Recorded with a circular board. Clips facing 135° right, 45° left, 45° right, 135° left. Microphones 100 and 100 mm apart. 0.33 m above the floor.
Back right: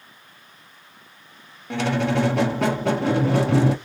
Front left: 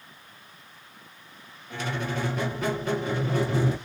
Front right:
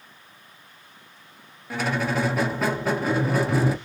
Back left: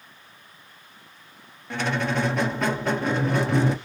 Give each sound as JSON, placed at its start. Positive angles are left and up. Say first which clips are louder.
{"t": 1.7, "sound": "a squeak", "louder": "back right 9 dB, even", "azimuth_deg": -130, "distance_m": 0.5}